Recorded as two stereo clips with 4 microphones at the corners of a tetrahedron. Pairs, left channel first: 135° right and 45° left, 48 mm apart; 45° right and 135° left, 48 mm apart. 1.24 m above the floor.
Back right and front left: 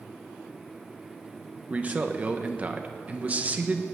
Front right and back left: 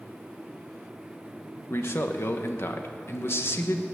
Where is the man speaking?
10° right, 1.3 m.